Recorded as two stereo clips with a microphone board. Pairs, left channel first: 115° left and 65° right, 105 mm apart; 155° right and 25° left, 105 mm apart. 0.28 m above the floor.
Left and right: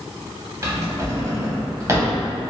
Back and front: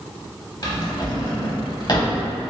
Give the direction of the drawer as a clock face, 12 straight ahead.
4 o'clock.